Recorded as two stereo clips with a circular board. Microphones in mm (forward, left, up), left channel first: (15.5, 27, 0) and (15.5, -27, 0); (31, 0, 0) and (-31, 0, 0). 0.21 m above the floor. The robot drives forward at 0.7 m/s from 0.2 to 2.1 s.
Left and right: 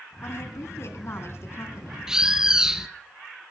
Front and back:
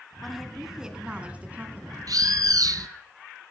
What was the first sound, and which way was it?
A woman speaking, 90° left.